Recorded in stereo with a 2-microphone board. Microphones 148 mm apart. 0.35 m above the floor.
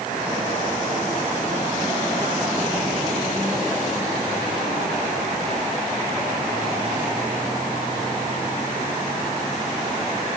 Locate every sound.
Only background noise.